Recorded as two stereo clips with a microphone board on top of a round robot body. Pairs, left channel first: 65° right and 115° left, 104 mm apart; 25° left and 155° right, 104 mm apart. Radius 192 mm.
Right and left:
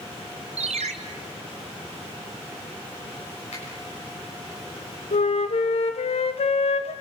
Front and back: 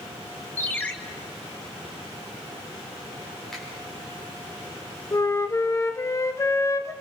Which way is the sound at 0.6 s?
100° left.